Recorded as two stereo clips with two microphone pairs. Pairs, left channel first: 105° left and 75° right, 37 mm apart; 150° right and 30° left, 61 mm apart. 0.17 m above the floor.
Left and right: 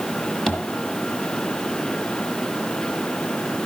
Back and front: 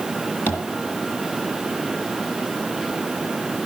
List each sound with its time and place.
0.5 s tapping: 170° left, 2 m